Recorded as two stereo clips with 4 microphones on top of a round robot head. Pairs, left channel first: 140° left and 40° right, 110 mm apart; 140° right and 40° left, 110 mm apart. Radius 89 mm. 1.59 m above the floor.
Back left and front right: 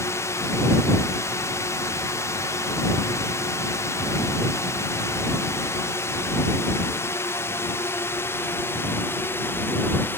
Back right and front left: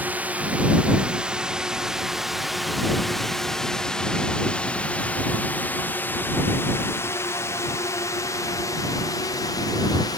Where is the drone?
105° left; by 10.2 s 165° right.